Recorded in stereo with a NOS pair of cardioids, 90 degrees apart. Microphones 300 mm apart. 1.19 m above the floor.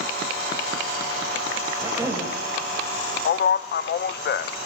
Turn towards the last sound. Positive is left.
turn(degrees=35)